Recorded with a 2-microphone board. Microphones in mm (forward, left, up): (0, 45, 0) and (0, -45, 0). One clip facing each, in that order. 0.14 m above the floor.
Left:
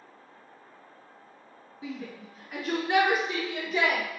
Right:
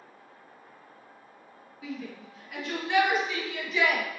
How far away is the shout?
About 1.2 m.